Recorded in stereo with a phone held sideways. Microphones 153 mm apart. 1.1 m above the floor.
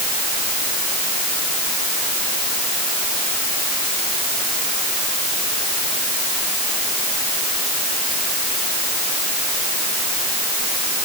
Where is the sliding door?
No sliding door in this recording.